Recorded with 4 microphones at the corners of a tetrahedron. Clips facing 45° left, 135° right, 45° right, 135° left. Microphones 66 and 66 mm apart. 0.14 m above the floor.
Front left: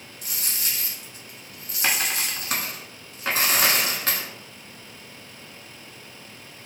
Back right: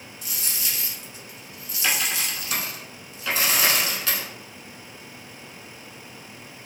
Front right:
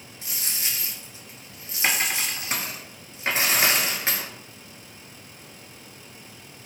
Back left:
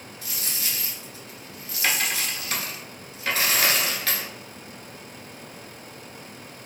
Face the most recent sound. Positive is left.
turn(degrees=15)